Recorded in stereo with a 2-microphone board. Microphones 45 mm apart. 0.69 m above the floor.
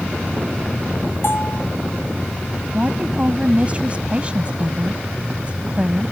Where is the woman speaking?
30° right (ahead or behind).